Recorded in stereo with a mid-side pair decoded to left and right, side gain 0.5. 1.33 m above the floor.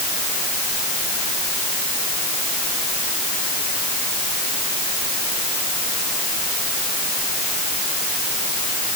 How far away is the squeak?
No squeak in this recording.